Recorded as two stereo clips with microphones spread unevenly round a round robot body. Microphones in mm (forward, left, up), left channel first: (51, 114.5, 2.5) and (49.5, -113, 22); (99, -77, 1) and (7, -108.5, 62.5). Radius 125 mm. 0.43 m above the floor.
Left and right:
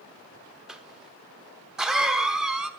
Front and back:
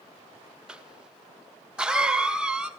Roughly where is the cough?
Ahead.